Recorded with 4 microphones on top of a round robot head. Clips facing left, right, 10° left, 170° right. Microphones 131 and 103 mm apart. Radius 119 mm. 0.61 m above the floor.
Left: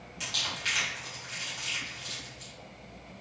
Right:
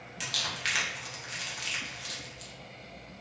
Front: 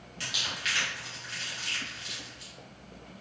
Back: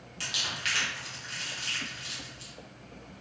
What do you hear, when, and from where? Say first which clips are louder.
0.2 s crumpling: right 1 dB, even; 120° right, 0.8 m